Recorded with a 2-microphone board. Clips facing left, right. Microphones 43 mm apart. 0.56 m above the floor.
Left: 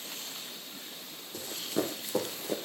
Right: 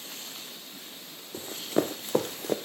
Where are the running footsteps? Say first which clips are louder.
Right 5 dB; 30° right (ahead or behind), 1.8 m; by 2.6 s 60° right (ahead or behind), 1.5 m.